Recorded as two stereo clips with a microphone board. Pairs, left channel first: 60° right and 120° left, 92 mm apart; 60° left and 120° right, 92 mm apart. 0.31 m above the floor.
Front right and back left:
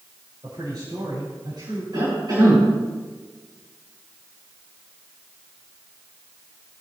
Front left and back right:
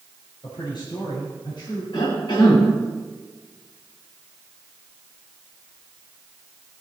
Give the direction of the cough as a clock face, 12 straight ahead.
9 o'clock.